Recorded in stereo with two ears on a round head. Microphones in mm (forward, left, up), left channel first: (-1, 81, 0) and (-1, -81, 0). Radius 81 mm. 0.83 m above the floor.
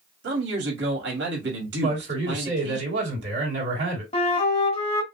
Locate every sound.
0.2 s a man speaking: 70° right (ahead or behind), 2 m
1.8 s a man speaking: 70° right (ahead or behind), 3 m
4.1 s a flute: 35° left (ahead or behind), 1.3 m